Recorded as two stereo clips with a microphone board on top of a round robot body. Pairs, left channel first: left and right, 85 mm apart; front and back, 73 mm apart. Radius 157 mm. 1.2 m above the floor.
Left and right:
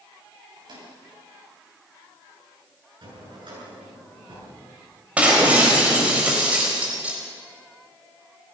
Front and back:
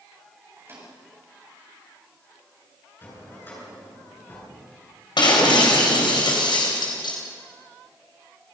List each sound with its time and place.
0.6 s a microwave: 125° right, 8.5 m
3.0 s a drawer: 60° right, 9.5 m
5.2 s breaking glass: 15° right, 4 m